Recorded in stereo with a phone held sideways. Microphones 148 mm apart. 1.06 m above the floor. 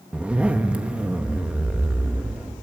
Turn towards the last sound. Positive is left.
turn(degrees=-10)  # may be behind; listen again after turning